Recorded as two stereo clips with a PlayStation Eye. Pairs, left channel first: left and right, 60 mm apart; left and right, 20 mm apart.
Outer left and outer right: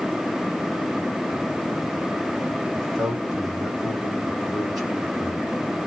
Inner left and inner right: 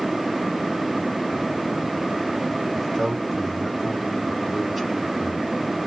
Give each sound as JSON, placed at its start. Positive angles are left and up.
{"t": 2.7, "sound": "a man speaking", "side_deg": -5, "distance_m": 2.0}